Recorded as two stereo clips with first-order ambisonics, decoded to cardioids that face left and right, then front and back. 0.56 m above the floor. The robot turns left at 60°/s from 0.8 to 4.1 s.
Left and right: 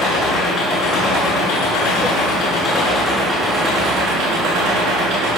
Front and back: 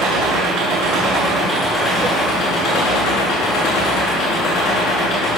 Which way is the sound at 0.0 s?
145° left.